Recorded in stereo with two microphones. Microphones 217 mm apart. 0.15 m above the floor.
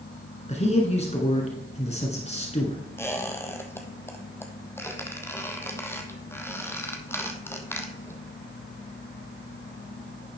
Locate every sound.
0.5 s a man speaking: 30° left (ahead or behind), 1.9 m
3.0 s a squeak: 10° left (ahead or behind), 1.2 m